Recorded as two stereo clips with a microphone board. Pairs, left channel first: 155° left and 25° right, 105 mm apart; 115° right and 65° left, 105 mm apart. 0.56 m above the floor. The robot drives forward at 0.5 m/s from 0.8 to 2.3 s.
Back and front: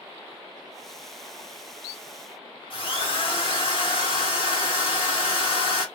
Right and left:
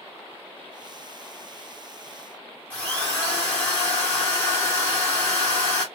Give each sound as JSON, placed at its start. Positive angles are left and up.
{"t": 2.7, "sound": "a drill", "azimuth_deg": 180, "distance_m": 1.2}